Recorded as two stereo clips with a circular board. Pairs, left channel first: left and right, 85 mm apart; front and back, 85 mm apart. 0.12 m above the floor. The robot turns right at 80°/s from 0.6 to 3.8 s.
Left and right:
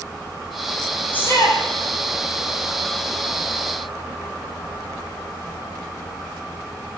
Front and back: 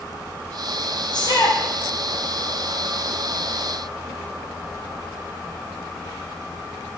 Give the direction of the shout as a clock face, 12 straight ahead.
11 o'clock.